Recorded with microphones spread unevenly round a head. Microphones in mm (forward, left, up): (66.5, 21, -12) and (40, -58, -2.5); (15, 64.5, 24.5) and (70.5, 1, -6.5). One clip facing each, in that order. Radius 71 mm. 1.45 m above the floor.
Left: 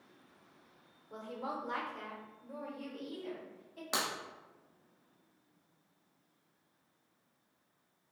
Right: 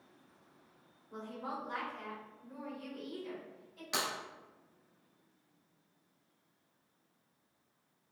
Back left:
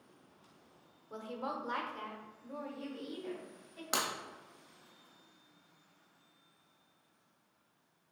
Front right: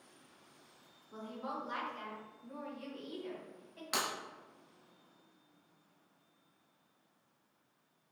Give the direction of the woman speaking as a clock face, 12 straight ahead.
8 o'clock.